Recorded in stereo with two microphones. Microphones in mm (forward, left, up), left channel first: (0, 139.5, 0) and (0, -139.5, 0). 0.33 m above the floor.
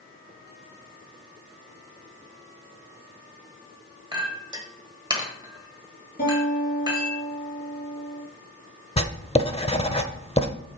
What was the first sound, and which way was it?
A clink, 15° right (ahead or behind).